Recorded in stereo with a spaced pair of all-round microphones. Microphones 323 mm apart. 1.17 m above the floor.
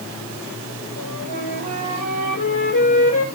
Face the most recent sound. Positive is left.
turn(degrees=65)  # may be behind; listen again after turning